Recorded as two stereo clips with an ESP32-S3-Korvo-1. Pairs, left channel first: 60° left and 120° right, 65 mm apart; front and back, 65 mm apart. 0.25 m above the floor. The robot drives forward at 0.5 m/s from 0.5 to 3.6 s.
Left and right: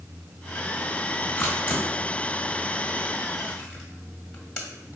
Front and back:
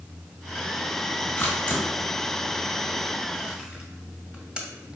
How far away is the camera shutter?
About 1.7 m.